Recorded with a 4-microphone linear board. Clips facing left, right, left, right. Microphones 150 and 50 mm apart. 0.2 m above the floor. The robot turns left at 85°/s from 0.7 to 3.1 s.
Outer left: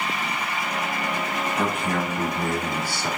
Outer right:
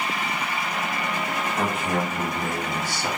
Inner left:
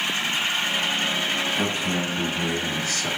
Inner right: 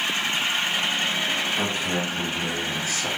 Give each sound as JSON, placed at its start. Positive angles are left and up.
{"t": 1.6, "sound": "a man speaking", "side_deg": 5, "distance_m": 1.3}